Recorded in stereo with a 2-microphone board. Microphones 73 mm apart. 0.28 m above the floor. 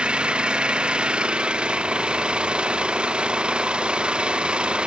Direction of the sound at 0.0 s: 15° right (ahead or behind).